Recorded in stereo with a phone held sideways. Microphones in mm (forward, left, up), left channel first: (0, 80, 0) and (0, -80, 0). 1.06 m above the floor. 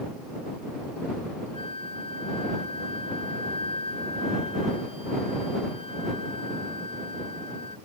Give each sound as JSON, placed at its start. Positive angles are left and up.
{"t": 1.5, "sound": "a flute", "side_deg": 40}